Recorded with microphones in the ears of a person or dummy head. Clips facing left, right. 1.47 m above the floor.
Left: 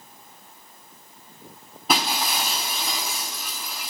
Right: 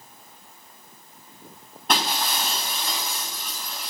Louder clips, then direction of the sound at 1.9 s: Left 1 dB; 5° left (ahead or behind).